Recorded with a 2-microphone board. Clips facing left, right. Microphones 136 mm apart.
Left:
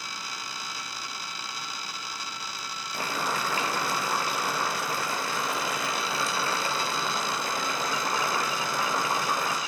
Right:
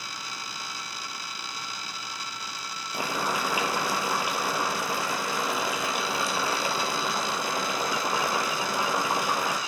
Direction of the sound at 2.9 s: 15° right (ahead or behind).